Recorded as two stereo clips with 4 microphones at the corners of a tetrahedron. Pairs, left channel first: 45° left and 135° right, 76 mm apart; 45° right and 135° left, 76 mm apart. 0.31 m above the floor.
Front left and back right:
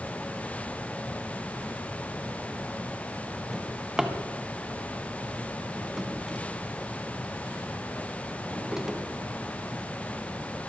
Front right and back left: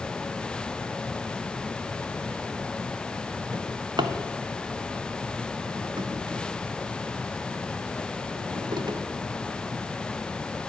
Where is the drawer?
145° left, 1.1 m.